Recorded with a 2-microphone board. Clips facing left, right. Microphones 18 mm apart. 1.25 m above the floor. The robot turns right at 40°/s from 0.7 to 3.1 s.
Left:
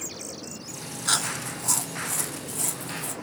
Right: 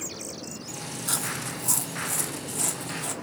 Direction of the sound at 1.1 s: 30° left (ahead or behind).